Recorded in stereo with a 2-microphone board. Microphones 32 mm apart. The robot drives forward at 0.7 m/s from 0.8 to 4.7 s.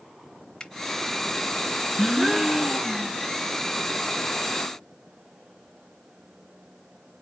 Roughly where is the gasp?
Centre.